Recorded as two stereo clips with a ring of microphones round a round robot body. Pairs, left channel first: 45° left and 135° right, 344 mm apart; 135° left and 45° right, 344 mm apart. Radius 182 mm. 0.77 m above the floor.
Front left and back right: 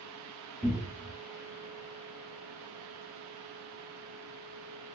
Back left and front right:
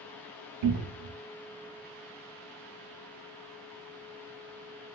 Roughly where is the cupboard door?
Ahead right.